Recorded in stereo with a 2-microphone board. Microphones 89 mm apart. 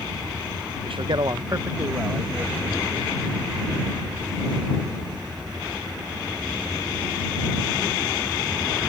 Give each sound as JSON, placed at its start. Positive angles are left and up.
{"t": 0.8, "sound": "a man speaking", "side_deg": -80}